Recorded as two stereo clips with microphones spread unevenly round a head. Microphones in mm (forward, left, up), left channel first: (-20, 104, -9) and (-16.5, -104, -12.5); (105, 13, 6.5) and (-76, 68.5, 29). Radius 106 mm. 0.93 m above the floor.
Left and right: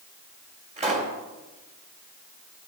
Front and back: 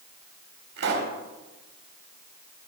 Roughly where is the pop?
Behind right.